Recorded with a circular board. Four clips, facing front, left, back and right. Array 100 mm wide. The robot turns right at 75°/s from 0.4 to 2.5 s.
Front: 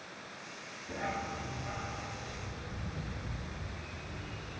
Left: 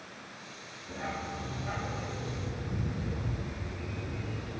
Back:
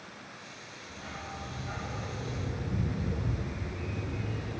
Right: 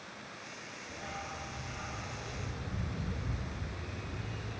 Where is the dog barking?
25° left, 1.4 m; by 4.6 s 145° left, 1.4 m.